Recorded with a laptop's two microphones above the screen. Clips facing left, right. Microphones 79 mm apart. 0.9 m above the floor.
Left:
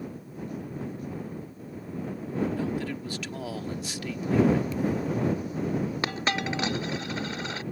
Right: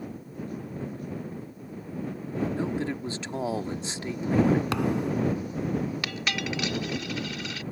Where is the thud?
85° right.